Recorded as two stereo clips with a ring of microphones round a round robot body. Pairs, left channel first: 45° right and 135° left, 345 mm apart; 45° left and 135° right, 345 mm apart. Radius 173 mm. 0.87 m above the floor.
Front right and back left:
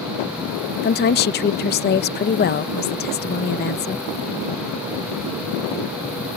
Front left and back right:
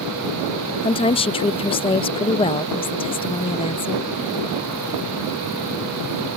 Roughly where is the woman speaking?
Ahead.